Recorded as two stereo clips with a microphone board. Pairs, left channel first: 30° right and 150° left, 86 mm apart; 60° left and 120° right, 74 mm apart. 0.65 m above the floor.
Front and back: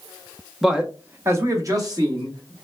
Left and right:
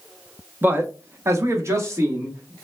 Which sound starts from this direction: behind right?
A man speaking, at 0.6 s.